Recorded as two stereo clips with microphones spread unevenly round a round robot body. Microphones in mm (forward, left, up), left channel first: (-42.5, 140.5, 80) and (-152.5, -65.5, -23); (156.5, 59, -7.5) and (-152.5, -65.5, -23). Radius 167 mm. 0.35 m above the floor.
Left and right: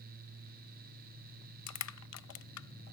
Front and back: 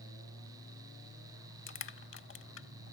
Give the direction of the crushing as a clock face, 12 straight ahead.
9 o'clock.